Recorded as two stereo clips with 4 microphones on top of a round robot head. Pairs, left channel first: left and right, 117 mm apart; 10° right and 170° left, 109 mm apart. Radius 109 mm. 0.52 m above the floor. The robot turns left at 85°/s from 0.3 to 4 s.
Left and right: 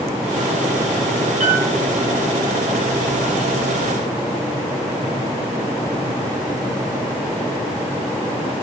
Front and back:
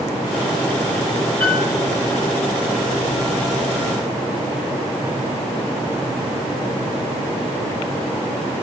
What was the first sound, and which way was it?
A piano, 85° right.